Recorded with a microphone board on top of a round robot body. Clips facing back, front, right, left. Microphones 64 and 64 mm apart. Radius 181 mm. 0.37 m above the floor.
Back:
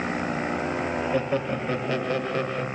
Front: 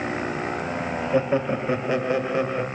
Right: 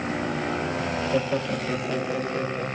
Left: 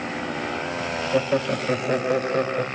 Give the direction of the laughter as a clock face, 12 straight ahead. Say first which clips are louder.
Front 8 dB, left 5 dB; 10 o'clock.